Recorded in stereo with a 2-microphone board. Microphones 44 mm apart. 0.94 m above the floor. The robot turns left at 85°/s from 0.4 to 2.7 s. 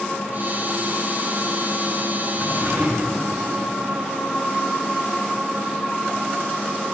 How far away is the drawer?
About 1.5 m.